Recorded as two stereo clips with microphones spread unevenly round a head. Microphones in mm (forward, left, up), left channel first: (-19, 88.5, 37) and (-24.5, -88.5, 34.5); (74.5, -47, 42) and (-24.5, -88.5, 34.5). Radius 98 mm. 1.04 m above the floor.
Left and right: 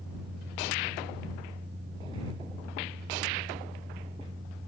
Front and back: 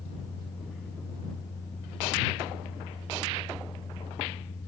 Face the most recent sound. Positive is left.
turn(degrees=-35)